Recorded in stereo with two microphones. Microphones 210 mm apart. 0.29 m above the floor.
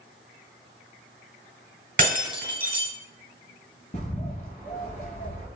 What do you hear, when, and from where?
2.0 s breaking glass: 55° right (ahead or behind), 1.7 m
3.9 s a bird: 40° left (ahead or behind), 1.2 m